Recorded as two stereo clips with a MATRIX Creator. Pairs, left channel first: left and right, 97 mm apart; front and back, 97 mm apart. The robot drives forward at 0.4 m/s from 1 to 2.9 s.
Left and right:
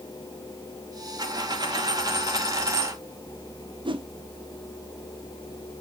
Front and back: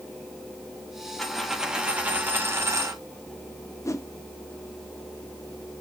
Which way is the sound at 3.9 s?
55° right.